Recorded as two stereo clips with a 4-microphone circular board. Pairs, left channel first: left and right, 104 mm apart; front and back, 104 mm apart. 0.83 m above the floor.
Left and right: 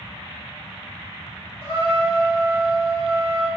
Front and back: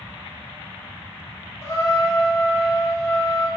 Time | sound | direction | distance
1.6 | a trumpet | 40° left | 1.0 m